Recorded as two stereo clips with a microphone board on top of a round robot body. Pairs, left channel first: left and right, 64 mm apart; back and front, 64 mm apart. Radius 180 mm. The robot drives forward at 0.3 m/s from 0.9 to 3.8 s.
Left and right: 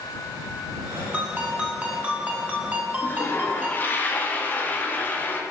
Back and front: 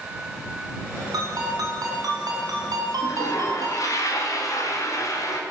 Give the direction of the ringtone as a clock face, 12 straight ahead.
1 o'clock.